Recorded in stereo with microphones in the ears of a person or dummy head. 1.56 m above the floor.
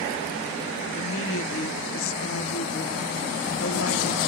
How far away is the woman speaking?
About 1.3 m.